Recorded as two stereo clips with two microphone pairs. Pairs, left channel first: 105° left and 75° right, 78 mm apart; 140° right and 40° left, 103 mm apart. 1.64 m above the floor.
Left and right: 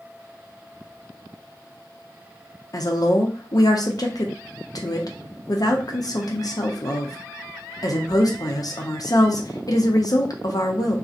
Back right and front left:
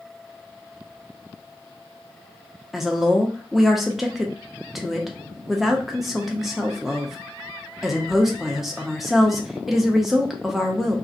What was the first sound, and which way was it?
A woman speaking, 130° left.